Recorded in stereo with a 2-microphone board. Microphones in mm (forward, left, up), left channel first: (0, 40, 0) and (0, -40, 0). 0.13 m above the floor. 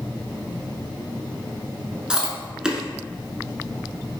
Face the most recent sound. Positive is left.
turn(degrees=-10)  # may be behind; listen again after turning